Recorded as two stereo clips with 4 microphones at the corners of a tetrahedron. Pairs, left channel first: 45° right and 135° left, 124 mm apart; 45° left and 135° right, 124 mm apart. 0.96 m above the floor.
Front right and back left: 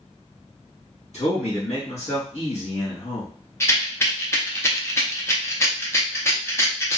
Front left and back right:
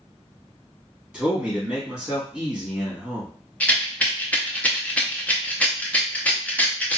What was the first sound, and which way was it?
A man speaking, 55° right.